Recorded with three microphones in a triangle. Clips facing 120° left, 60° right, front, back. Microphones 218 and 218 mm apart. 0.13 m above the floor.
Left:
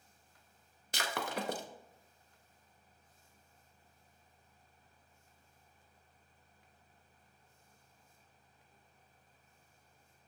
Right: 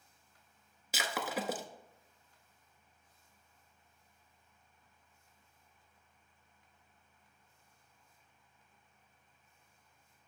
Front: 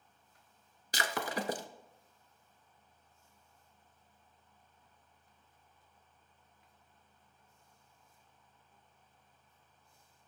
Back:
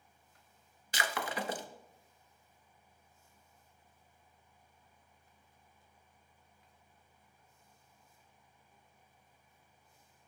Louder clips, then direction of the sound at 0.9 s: Right 1 dB, front 1 dB; 25° left.